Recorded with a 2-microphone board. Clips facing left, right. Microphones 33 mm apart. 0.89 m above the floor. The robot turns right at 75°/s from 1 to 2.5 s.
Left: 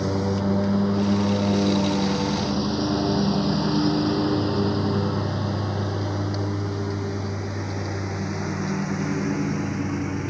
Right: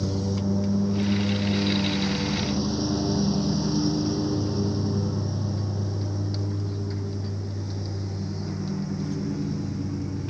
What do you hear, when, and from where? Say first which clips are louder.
0.0 s a lawn mower: left 4 dB; 60° left (ahead or behind); by 10.3 s 85° left